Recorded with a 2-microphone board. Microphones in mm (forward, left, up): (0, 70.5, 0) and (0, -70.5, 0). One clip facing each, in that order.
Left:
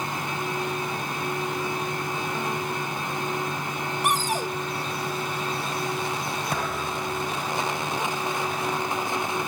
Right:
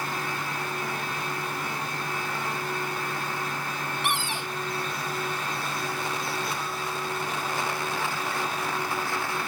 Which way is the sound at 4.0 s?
40° left (ahead or behind).